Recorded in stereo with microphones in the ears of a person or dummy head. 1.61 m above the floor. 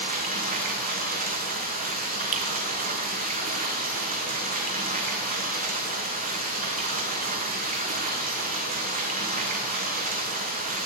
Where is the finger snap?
40° right (ahead or behind), 1.6 m.